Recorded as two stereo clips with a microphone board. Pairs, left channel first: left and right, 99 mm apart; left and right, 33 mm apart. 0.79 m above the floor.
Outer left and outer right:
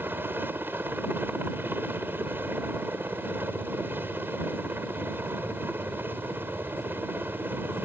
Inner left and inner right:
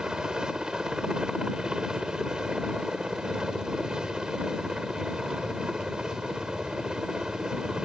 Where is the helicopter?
20° right (ahead or behind).